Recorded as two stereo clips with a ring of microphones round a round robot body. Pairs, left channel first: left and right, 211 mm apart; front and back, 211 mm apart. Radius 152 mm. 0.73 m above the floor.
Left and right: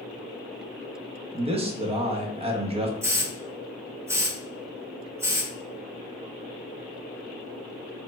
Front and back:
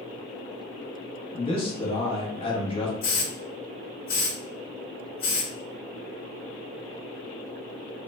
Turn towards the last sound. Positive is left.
turn(degrees=-10)